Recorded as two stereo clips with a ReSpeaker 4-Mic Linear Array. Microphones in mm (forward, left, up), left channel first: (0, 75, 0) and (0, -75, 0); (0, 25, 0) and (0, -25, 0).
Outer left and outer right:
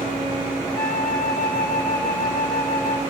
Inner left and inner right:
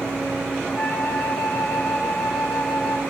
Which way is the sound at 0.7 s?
20° left (ahead or behind).